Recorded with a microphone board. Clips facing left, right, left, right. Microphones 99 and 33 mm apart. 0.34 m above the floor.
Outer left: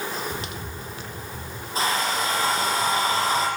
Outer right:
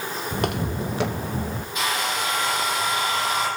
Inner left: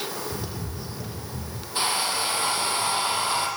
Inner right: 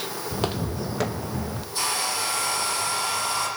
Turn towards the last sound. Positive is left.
turn(degrees=35)  # may be behind; listen again after turning